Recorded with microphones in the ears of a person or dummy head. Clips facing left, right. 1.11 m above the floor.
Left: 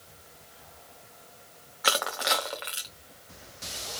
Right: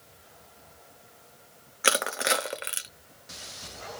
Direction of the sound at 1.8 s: 30° right (ahead or behind).